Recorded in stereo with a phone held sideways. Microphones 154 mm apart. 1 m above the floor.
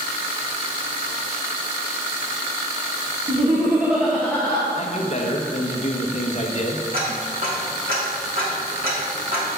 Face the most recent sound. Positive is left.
turn(degrees=-75)  # may be behind; listen again after turning